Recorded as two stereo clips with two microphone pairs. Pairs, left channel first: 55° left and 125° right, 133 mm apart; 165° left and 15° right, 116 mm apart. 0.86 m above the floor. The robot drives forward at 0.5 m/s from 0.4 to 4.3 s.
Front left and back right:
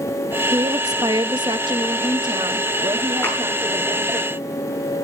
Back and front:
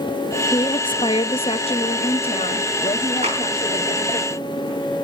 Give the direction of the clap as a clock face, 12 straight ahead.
1 o'clock.